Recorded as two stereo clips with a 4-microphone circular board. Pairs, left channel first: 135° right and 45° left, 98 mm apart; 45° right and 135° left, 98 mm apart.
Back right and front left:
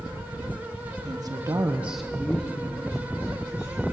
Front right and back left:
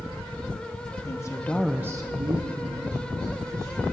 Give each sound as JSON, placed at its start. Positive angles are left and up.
{"t": 1.1, "sound": "a woman speaking", "azimuth_deg": 5, "distance_m": 1.0}